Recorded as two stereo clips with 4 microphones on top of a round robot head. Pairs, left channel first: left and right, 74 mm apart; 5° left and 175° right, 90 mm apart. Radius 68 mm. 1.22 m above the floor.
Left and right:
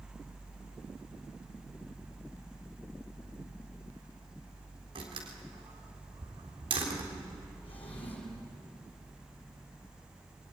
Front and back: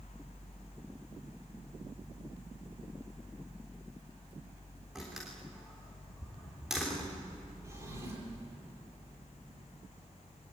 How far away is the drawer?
About 8 m.